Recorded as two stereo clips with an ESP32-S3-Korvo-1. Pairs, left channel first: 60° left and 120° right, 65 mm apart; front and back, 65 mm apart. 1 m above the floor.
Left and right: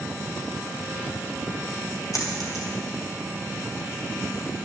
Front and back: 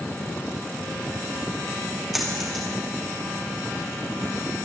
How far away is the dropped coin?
About 3 m.